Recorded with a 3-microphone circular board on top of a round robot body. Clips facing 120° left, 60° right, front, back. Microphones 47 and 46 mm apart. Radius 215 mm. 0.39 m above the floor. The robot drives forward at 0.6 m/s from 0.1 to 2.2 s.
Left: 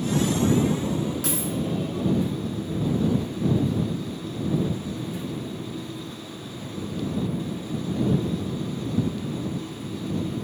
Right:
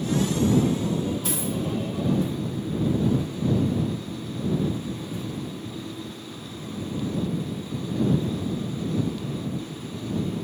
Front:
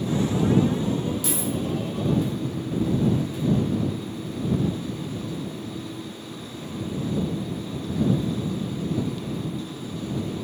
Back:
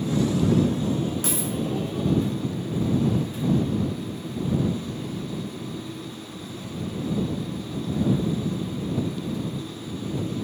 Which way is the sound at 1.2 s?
135° left.